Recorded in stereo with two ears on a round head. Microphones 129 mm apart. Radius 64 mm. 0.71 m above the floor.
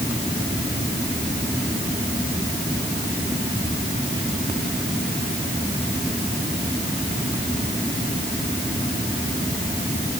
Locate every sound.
Only background noise.